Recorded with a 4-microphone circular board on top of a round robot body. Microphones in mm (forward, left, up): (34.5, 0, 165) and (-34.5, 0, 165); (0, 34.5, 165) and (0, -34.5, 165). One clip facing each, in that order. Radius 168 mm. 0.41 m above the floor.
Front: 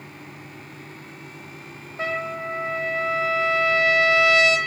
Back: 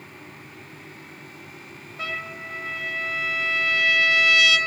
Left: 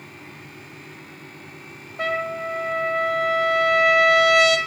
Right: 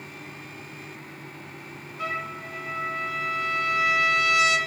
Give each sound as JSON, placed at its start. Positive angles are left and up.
{"t": 2.0, "sound": "a trumpet", "azimuth_deg": 60, "distance_m": 2.0}